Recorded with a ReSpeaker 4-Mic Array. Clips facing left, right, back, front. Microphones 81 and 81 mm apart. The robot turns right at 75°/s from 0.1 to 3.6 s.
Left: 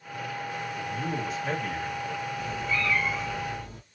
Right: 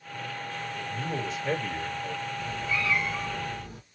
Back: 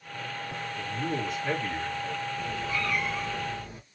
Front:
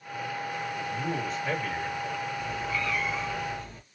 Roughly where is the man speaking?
Ahead left.